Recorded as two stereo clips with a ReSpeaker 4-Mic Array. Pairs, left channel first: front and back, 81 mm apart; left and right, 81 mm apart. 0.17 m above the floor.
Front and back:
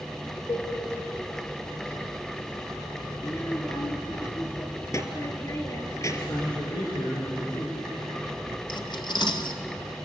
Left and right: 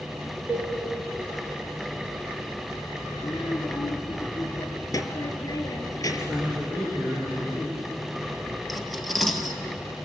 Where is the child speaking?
45° left, 3.5 m.